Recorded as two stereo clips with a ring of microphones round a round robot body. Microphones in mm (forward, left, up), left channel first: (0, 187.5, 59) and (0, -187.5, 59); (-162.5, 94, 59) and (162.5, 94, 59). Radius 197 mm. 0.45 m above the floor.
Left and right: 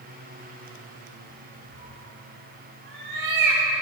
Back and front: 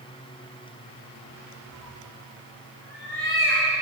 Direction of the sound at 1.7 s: 90° right.